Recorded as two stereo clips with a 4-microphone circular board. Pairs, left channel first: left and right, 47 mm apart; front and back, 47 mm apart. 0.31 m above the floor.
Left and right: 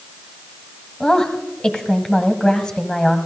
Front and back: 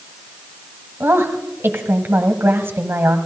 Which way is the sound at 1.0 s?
165° left.